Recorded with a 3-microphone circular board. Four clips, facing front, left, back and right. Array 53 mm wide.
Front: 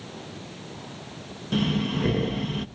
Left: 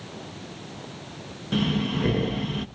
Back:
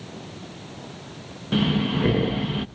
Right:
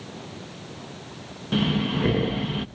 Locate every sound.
1.5 s breathing: 155° right, 0.7 m